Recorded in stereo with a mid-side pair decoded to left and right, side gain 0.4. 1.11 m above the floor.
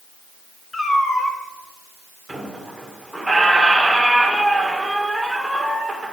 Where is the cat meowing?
20° left, 2.5 m.